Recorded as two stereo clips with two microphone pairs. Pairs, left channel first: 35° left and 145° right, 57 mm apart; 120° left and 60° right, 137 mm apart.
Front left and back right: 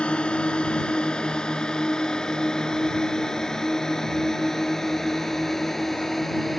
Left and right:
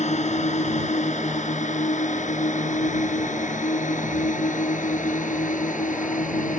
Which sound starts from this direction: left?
A drone, at 0.0 s.